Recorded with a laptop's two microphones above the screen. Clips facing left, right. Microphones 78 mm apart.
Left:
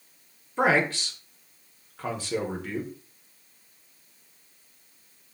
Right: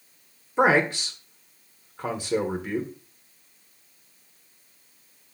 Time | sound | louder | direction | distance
0.6 | a man speaking | right 3 dB | 15° right (ahead or behind) | 0.8 m